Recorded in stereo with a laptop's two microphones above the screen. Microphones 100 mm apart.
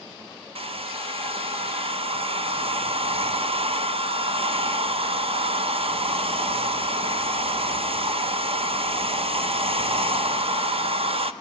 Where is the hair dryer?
70° right (ahead or behind), 0.6 m.